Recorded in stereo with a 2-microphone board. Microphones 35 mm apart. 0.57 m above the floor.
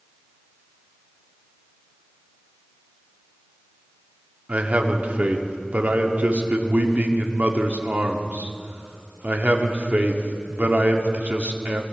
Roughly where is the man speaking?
Right.